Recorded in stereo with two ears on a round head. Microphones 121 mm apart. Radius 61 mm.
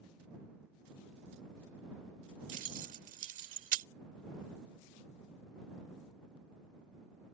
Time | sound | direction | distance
2.5 | keys jangling | 60° right (ahead or behind) | ?